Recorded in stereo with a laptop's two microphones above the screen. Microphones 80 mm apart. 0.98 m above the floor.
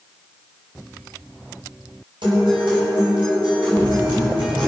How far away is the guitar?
About 6.5 m.